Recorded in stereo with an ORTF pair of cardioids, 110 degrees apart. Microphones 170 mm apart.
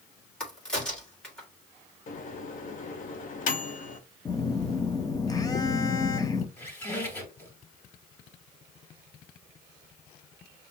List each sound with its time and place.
0.4 s a crack: 5° left, 1.8 m
2.1 s a microwave: 55° left, 0.9 m
4.2 s a phone buzzing: 20° left, 0.6 m
6.6 s a squeak: 15° left, 2.5 m